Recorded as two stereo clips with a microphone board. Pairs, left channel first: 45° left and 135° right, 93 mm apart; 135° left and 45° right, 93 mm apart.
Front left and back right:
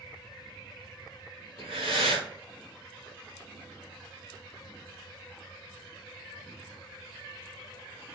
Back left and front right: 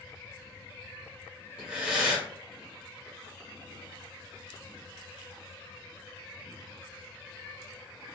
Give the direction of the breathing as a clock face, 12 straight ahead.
4 o'clock.